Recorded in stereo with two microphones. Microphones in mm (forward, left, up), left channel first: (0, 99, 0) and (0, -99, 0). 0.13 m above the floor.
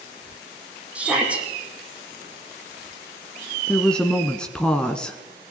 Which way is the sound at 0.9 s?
5° right (ahead or behind).